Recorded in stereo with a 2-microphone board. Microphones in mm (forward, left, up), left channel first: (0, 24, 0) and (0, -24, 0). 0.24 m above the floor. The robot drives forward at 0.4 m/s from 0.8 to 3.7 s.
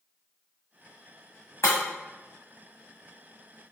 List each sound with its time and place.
1.6 s breaking glass: 75° left (ahead or behind), 1.5 m; by 1.8 s 80° left, 1.5 m